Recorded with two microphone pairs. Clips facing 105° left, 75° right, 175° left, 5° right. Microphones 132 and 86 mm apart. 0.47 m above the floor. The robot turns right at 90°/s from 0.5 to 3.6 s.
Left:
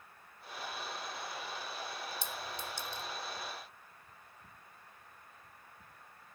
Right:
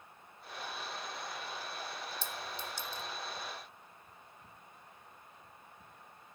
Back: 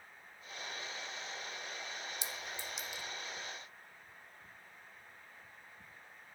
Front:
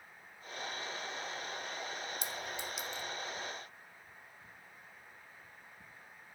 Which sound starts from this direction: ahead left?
A clink, at 2.2 s.